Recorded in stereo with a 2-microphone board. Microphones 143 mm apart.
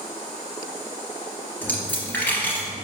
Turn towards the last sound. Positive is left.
turn(degrees=10)  # may be behind; listen again after turning